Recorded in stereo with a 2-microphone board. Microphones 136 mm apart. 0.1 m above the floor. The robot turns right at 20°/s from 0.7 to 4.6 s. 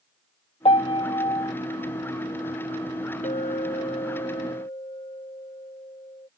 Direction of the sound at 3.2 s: 65° left (ahead or behind).